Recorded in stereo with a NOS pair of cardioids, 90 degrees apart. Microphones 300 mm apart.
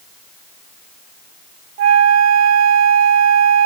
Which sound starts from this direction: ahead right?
A flute, at 1.8 s.